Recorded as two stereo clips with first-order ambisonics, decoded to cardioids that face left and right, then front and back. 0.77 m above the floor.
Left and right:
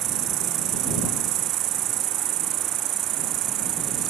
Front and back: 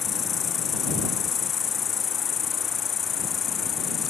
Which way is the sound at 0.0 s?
60° right.